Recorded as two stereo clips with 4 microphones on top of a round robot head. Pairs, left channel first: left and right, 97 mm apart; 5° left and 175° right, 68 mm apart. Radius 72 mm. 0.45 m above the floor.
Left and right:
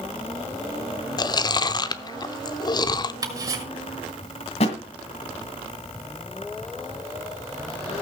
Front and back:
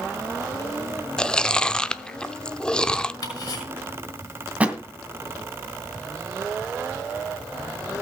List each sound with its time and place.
1.2 s chewing: 80° left, 0.8 m
3.2 s ticking: 40° right, 5.5 m
4.6 s a thud: 115° left, 1.9 m